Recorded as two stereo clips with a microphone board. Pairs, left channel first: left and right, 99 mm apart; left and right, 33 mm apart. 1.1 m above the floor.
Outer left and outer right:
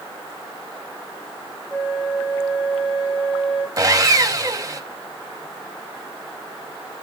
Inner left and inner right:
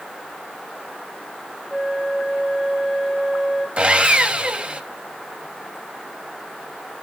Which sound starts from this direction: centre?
A flute, at 1.7 s.